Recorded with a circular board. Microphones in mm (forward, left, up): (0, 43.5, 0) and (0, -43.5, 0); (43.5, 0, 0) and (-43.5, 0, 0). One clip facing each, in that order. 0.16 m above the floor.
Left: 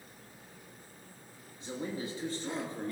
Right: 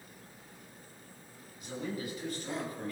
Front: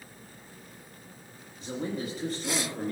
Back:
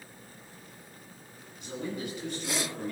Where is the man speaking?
40° left, 2.5 m.